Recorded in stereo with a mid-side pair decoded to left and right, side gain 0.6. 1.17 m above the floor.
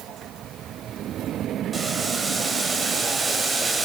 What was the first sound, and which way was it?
Boiling, 25° right.